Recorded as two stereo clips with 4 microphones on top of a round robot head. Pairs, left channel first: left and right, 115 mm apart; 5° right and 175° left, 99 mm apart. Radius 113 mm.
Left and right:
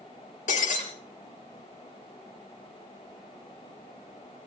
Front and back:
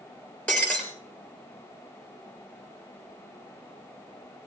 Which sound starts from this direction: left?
Breaking glass, at 0.5 s.